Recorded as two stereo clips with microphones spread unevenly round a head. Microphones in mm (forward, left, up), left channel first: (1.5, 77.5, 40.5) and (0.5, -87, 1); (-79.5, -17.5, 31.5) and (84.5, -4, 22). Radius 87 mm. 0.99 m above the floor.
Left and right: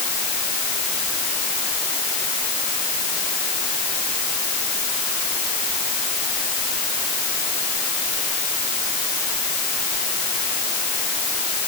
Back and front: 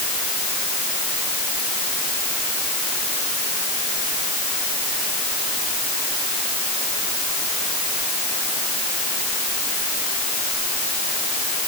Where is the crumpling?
I don't hear crumpling.